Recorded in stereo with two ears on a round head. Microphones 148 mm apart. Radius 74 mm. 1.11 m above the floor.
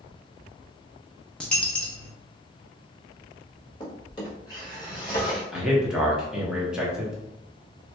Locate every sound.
1.4 s a dropped coin: 5° left (ahead or behind), 0.6 m
3.8 s a drawer: 25° left (ahead or behind), 1.2 m
5.5 s a man speaking: 5° right (ahead or behind), 1.0 m